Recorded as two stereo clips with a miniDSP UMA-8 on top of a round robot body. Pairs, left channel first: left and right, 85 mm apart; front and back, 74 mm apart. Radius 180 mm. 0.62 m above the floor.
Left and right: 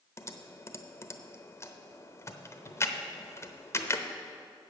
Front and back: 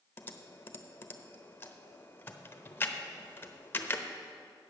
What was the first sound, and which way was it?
Typing on a keyboard, 50° left.